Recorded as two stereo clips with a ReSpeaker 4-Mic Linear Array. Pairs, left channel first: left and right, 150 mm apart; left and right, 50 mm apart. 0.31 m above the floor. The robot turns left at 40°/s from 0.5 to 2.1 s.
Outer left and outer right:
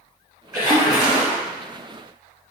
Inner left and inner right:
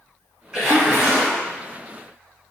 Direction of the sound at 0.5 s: 15° right.